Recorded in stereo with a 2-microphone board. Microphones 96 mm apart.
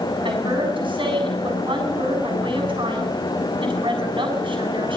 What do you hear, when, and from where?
0.2 s a woman speaking: 55° right (ahead or behind), 7.5 m